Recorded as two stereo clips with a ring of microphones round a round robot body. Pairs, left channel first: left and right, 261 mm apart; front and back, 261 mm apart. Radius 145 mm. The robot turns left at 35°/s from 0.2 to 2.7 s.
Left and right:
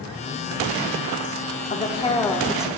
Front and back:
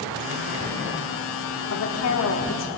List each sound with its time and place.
1.7 s a woman speaking: 30° left, 1.3 m; by 2.7 s 5° right, 1.3 m